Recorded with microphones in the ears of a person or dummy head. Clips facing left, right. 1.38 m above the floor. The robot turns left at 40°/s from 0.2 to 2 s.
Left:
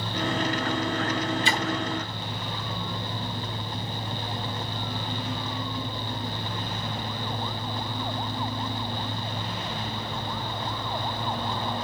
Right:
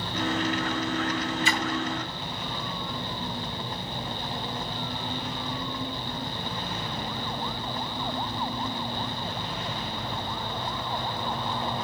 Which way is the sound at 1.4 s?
30° left (ahead or behind).